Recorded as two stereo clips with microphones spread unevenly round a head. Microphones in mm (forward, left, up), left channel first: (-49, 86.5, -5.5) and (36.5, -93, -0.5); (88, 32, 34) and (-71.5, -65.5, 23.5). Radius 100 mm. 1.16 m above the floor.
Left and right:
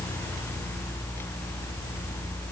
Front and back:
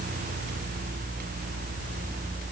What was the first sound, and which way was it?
Only background noise.